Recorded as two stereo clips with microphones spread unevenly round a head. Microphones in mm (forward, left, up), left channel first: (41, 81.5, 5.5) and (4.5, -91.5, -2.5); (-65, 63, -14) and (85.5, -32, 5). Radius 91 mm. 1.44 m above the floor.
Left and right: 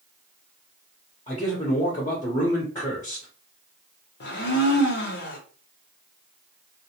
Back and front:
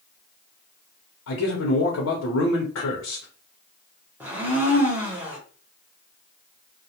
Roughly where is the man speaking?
Behind left.